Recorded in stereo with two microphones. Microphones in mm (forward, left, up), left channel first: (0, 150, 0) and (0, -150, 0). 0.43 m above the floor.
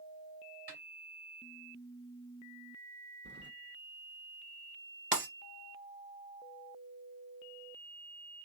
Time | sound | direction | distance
0.7 | a snare drum | 35° right (ahead or behind) | 2.5 m
3.2 | keys jangling | 35° right (ahead or behind) | 0.7 m
5.1 | breaking glass | 40° right (ahead or behind) | 2 m